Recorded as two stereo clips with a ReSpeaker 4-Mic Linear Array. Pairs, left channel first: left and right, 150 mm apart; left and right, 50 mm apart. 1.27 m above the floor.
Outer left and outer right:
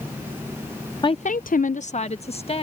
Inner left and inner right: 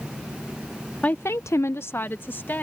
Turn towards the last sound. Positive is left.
turn(degrees=40)  # may be behind; listen again after turning